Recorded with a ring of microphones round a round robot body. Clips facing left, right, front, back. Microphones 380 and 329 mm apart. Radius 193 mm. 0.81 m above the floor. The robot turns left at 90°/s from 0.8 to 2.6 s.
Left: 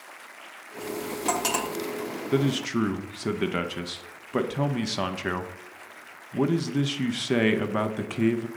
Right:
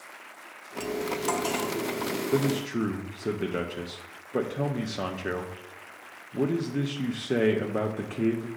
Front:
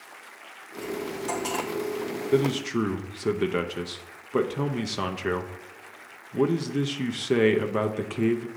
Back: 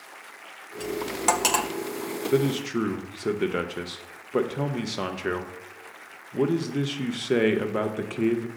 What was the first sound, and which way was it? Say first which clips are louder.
Cutlery clinking: right 1 dB, back 2 dB; 140° right.